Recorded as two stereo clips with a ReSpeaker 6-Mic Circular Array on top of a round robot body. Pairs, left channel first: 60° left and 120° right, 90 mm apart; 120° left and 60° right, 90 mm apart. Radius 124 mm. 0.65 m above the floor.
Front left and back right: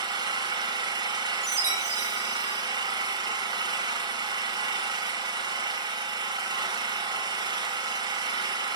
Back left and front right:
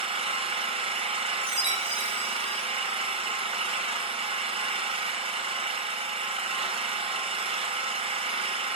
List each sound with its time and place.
0.0 s an engine running: 75° right, 1.6 m
1.4 s a chime: 70° right, 5 m